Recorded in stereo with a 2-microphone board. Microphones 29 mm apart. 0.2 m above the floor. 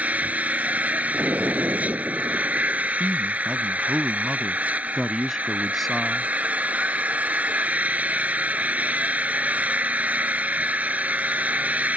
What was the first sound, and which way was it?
An engine running, 60° right (ahead or behind).